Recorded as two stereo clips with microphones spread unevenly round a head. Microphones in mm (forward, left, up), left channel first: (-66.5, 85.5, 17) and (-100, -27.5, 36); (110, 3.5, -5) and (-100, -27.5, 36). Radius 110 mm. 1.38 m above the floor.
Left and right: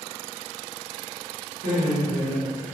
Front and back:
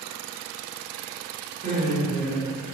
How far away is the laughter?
About 1.0 m.